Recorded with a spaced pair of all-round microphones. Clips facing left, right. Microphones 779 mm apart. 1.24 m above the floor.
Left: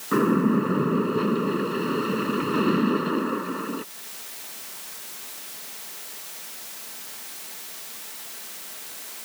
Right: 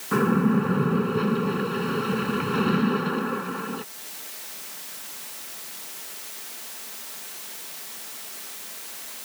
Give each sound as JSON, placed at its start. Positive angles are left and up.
{"t": 0.1, "sound": "a splash", "side_deg": -25}